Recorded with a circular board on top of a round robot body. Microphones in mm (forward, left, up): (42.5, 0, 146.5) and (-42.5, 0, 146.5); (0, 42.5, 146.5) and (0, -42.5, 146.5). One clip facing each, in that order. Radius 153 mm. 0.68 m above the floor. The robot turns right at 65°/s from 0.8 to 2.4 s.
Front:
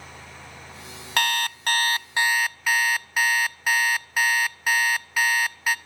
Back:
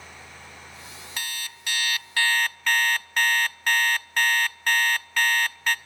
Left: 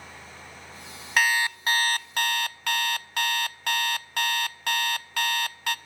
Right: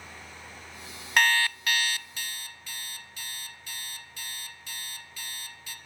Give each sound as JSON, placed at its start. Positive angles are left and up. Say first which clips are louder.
{"t": 1.2, "sound": "an alarm clock", "louder": "front 13 dB, even", "azimuth_deg": 0, "distance_m": 0.5}